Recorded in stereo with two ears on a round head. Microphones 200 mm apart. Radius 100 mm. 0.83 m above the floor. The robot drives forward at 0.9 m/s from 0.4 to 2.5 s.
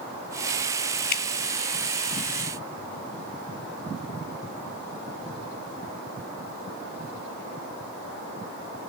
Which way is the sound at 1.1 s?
40° left (ahead or behind).